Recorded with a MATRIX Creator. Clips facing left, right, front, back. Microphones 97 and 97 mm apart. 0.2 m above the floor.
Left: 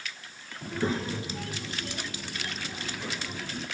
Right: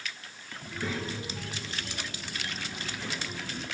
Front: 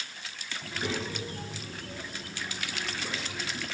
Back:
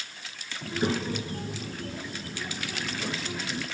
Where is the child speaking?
135° left, 2 m; by 3.6 s 165° left, 5 m.